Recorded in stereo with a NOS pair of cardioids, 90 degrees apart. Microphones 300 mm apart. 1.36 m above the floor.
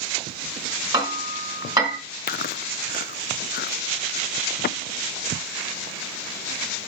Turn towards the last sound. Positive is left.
turn(degrees=35)